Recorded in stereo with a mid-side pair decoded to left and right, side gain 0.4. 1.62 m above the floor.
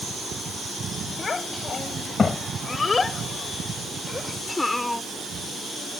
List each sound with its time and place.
1.2 s a child speaking: 40° left; by 5.0 s 10° left